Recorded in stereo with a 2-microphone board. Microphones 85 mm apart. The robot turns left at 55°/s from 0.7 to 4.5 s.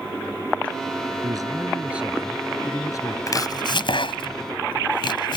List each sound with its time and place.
1.2 s a man speaking: 125° right; by 3.2 s 130° left
3.3 s chopping: 40° left (ahead or behind); by 5.4 s 70° left (ahead or behind)